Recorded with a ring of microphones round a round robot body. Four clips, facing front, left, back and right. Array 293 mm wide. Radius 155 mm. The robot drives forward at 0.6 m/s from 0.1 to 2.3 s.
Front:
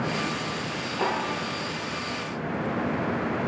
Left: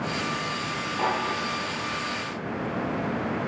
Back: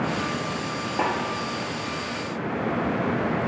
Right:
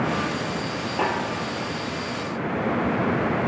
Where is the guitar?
I don't hear a guitar.